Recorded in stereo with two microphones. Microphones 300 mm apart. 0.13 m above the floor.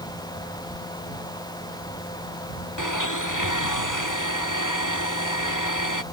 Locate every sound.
2.8 s a blender: 85° left